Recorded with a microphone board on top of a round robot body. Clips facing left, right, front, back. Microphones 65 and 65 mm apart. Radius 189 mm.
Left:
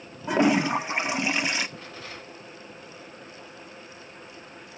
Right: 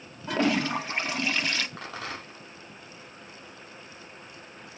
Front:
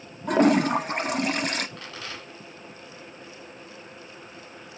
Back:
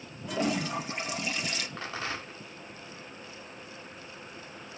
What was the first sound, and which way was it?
A toilet flushing, 20° left.